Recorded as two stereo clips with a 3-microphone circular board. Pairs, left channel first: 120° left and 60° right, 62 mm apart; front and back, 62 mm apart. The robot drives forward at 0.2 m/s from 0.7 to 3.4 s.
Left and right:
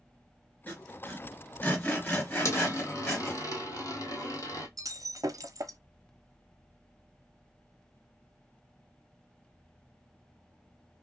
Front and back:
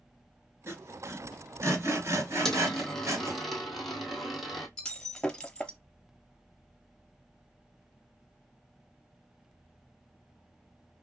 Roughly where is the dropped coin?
Left.